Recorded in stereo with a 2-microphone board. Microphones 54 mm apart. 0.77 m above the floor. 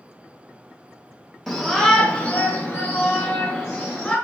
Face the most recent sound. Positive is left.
turn(degrees=30)  # may be behind; listen again after turning